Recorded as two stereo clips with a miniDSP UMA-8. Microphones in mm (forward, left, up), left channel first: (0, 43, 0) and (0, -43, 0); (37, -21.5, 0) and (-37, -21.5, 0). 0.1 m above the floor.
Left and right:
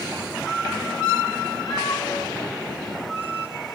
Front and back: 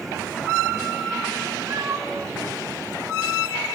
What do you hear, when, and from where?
1.7 s a cat meowing: 130° left, 3.5 m; by 3.8 s 115° left, 4.5 m